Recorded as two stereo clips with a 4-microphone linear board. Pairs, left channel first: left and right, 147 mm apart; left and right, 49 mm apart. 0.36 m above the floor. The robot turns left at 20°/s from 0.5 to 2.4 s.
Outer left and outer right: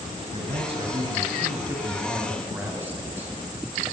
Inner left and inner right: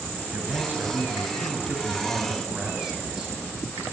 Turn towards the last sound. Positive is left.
turn(degrees=-165)